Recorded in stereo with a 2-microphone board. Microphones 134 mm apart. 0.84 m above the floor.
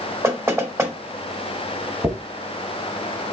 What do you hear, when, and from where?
0.2 s knocking: 20° right (ahead or behind), 1.0 m
2.0 s a dropped coin: 20° right (ahead or behind), 0.8 m